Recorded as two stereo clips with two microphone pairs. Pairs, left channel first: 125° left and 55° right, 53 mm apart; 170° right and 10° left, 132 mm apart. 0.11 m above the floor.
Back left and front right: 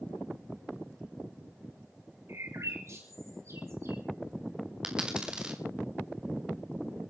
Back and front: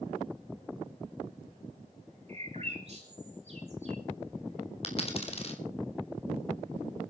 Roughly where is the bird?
Ahead right.